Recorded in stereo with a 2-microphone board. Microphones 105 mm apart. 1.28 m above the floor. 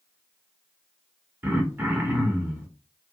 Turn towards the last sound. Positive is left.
turn(degrees=-20)  # may be behind; listen again after turning